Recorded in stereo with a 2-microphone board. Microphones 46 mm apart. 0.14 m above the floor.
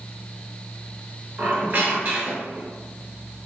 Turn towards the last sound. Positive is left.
turn(degrees=-30)  # may be behind; listen again after turning